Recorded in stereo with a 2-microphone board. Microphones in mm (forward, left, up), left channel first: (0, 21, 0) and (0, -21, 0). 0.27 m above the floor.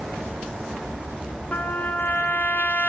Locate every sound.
1.5 s a trumpet: 40° left (ahead or behind), 2 m